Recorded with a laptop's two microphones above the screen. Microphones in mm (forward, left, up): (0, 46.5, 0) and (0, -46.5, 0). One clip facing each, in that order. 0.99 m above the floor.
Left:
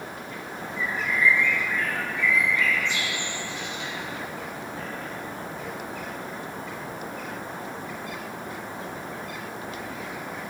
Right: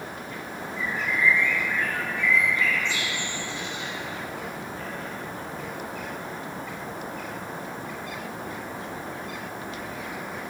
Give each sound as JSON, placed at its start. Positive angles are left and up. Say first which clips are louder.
{"t": 0.8, "sound": "a bird", "louder": "left 1 dB", "side_deg": -30, "distance_m": 3.5}